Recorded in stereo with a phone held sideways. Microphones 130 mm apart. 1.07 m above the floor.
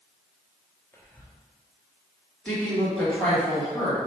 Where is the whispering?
15° left (ahead or behind), 0.7 m.